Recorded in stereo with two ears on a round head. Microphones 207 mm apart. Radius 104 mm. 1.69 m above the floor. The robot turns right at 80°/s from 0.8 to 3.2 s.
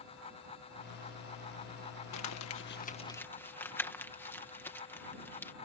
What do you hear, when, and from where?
2.1 s crumpling: 85° left; by 5.5 s 10° left (ahead or behind)